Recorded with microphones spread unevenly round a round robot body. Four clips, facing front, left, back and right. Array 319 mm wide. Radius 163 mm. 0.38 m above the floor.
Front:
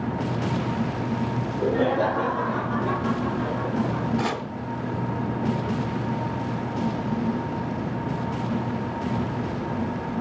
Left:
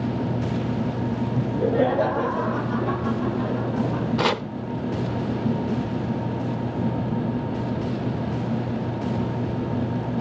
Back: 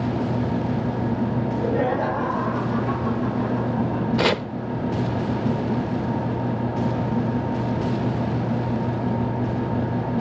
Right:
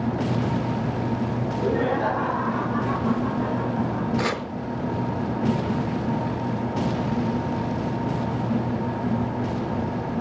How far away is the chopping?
About 0.9 m.